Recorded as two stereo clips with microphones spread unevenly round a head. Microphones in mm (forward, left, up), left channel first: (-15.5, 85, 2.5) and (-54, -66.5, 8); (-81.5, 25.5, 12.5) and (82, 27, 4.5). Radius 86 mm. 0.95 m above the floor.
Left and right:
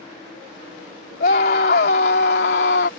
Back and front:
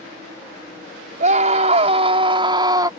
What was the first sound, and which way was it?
A scream, 40° left.